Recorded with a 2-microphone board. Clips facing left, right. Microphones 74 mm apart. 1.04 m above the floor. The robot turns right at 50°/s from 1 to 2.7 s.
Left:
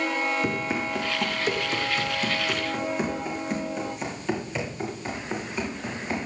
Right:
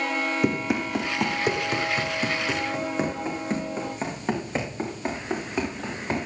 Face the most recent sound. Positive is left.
turn(degrees=-45)  # may be behind; listen again after turning